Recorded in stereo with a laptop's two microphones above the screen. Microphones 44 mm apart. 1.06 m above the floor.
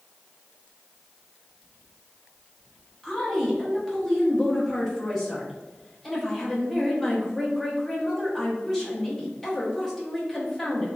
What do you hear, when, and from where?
3.0 s a woman speaking: 10° left (ahead or behind), 0.7 m